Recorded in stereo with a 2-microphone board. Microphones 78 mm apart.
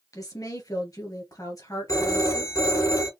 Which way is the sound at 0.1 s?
50° left (ahead or behind).